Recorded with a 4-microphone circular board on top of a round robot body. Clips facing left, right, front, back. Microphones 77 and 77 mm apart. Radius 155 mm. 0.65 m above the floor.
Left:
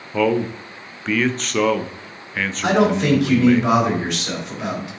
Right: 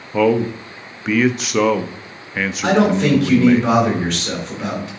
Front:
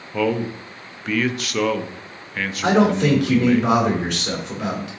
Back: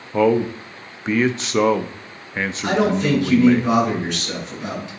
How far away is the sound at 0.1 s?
About 0.7 m.